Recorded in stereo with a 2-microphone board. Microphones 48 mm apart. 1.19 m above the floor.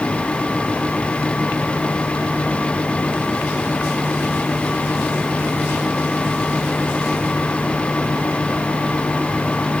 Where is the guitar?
I don't hear a guitar.